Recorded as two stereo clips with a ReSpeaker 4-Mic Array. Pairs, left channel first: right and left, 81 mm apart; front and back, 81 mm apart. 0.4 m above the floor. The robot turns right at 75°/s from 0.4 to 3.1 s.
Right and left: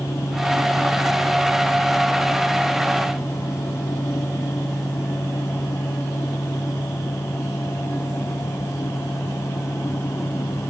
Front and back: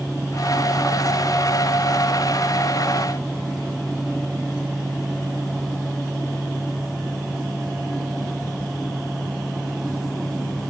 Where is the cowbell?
No cowbell in this recording.